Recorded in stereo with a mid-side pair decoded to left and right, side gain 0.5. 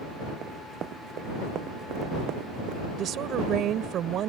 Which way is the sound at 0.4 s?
55° right.